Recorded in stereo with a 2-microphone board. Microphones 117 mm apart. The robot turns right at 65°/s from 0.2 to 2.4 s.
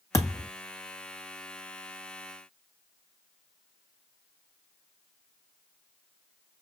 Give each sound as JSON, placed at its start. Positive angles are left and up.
{"t": 0.1, "sound": "a thud", "side_deg": 30, "distance_m": 1.6}